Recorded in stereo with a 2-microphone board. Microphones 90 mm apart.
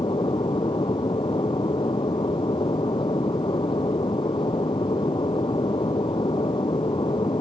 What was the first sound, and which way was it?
An aircraft, 65° left (ahead or behind).